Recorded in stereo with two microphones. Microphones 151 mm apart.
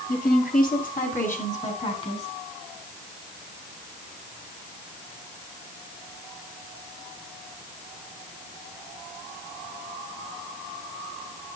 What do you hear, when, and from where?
0.1 s a woman speaking: 65° left (ahead or behind), 2.5 m; by 2.3 s 45° left (ahead or behind), 3 m